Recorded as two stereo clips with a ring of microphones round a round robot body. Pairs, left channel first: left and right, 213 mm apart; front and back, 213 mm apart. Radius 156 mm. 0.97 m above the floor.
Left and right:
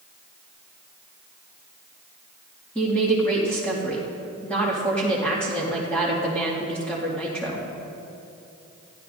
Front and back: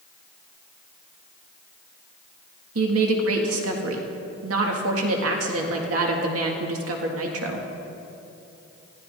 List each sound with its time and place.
2.8 s a woman speaking: 175° left, 1.9 m